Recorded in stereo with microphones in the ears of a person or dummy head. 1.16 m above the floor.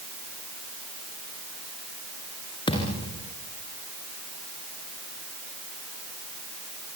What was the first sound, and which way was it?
A thud, 30° left (ahead or behind).